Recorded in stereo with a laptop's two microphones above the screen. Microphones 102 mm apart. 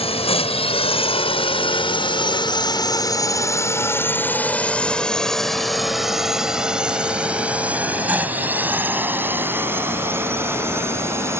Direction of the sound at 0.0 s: 75° left (ahead or behind).